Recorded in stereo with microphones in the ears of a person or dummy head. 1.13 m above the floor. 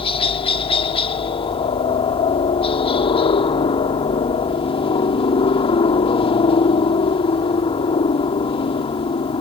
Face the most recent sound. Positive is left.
turn(degrees=20)  # may be behind; listen again after turning